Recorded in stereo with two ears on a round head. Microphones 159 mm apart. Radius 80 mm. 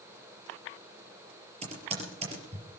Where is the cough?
No cough in this recording.